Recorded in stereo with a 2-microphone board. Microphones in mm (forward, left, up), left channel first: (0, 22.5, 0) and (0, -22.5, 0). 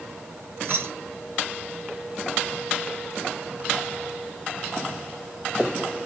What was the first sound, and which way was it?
Keys jangling, 60° right (ahead or behind).